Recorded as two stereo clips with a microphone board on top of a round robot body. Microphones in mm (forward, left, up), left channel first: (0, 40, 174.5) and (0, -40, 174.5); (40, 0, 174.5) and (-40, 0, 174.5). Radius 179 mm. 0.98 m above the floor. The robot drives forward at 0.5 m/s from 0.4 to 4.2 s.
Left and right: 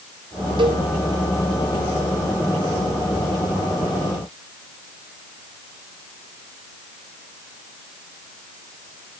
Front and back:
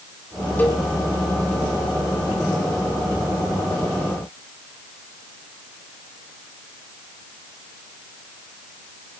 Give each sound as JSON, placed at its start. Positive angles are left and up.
{"t": 0.6, "sound": "a cowbell", "azimuth_deg": -70, "distance_m": 2.5}